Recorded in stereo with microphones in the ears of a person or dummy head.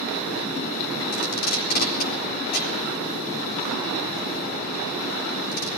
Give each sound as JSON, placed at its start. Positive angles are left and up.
{"t": 1.1, "sound": "tape being pulled", "side_deg": 50, "distance_m": 4.0}